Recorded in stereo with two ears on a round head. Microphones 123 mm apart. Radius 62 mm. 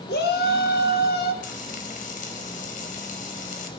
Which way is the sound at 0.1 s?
85° left.